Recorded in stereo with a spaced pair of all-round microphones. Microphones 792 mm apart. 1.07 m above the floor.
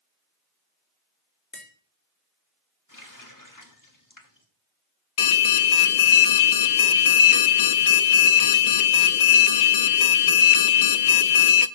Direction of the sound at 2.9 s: 25° left (ahead or behind).